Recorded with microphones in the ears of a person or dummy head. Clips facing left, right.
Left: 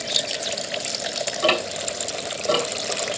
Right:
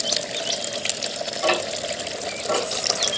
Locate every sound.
1.4 s ticking: 60° left (ahead or behind), 3 m